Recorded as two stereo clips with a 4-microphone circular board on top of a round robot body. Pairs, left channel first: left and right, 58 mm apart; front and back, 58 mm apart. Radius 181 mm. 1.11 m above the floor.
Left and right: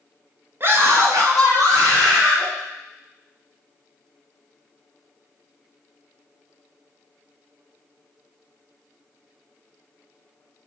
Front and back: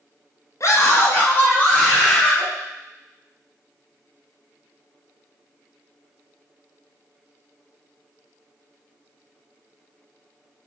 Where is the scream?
35° right, 1.6 m; by 2.5 s 75° right, 4 m.